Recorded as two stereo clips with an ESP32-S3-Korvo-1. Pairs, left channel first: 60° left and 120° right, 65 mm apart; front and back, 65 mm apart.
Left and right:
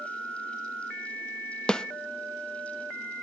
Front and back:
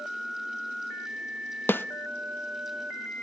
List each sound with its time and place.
1.7 s a snare drum: 5° right, 0.7 m